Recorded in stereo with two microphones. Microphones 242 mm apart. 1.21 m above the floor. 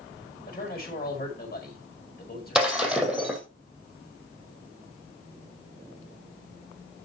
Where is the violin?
No violin in this recording.